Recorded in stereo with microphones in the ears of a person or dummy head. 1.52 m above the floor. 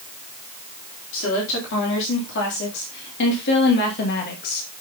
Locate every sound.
1.1 s a woman speaking: 70° left (ahead or behind), 4 m; by 4.6 s 50° left (ahead or behind), 2 m